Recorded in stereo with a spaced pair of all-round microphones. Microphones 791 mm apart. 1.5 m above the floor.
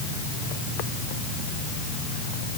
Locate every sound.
Only background noise.